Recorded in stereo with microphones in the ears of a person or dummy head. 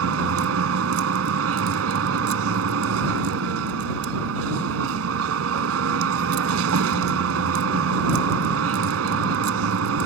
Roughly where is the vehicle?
Right.